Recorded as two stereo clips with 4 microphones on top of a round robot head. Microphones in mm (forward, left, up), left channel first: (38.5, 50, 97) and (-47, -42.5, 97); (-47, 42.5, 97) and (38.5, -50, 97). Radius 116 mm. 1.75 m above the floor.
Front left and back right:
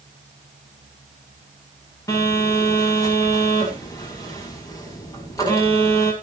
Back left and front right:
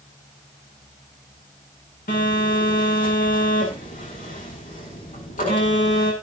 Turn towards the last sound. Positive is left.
turn(degrees=110)